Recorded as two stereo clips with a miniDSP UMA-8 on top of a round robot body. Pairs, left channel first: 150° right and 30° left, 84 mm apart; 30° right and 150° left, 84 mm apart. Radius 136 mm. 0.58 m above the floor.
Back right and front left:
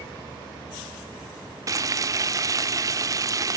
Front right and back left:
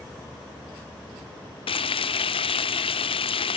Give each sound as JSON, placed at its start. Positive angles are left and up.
{"t": 1.7, "sound": "frying", "azimuth_deg": -20, "distance_m": 0.7}